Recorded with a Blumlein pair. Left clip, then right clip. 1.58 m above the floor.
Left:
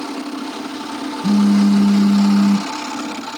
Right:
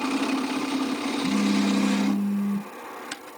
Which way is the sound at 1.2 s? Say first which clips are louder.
Left 9 dB; 55° left.